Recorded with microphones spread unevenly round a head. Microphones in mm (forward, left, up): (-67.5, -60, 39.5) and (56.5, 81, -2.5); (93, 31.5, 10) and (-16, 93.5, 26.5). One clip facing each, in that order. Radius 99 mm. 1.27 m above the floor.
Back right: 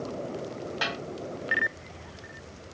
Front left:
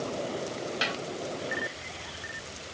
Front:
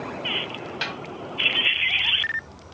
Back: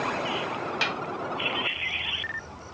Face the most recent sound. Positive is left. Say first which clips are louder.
# even, back 1 dB
turn(degrees=115)